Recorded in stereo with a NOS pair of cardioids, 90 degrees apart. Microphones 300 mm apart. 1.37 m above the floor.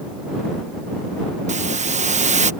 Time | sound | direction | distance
1.5 | a hiss | 25° right | ?